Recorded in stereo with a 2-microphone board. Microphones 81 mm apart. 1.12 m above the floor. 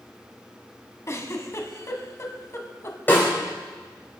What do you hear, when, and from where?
1.1 s a giggle: 40° left (ahead or behind), 1.5 m
3.1 s a snare drum: 25° left (ahead or behind), 4.5 m